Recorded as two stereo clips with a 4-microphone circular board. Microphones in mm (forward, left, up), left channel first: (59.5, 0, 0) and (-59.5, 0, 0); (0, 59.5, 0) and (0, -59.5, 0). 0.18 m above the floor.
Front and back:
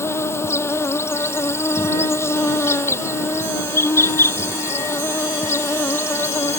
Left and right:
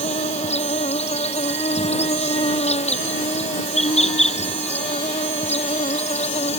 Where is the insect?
70° left.